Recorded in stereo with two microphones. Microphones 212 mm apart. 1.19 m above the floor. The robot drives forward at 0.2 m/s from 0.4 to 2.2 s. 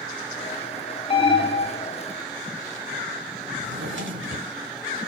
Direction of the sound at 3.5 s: 65° right (ahead or behind).